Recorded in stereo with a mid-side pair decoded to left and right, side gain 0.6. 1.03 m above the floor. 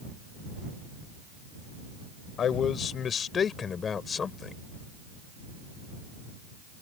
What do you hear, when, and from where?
2.4 s a man speaking: 45° left; by 4.5 s 30° left